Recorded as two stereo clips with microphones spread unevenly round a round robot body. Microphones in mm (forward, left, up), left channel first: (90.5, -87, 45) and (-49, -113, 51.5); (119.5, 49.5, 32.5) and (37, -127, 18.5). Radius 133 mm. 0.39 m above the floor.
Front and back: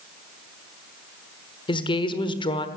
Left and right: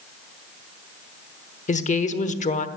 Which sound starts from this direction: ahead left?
A woman speaking, at 1.7 s.